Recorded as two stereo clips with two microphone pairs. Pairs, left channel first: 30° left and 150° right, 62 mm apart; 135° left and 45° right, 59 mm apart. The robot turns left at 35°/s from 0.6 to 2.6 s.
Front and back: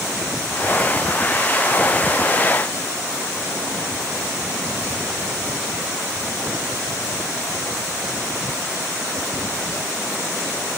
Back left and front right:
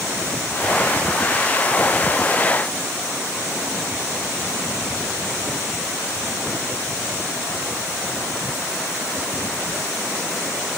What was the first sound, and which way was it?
Only background noise.